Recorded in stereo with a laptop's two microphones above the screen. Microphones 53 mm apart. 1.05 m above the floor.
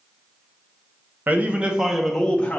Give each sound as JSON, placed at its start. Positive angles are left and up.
{"t": 1.3, "sound": "a man speaking", "side_deg": -35, "distance_m": 0.7}